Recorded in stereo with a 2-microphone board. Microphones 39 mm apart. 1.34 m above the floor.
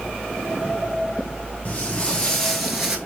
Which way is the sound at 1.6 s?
40° left (ahead or behind).